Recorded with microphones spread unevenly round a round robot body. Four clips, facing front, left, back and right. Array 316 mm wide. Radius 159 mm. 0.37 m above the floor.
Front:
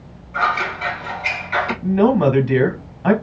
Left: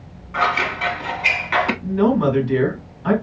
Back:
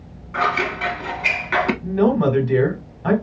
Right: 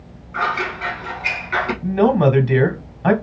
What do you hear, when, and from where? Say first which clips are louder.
0.3 s scissors: left 2 dB, front 1 dB; 165° left, 0.6 m
1.8 s a man speaking: right 5 dB, front 5 dB; 70° right, 2 m